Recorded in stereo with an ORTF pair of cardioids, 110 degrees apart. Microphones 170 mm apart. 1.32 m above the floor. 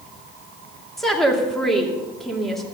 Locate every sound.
1.0 s a woman speaking: straight ahead, 2.5 m